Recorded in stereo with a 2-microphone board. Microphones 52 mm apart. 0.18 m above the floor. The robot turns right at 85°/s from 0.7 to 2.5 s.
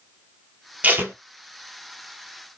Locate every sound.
0.8 s tape being pulled: 30° right (ahead or behind), 0.8 m; by 1.1 s 55° right (ahead or behind), 0.8 m